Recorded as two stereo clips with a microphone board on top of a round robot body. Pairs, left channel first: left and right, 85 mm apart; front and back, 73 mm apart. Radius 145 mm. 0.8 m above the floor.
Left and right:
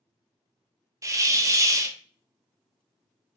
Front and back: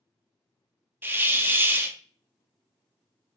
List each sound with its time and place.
1.0 s a hiss: 125° right, 0.6 m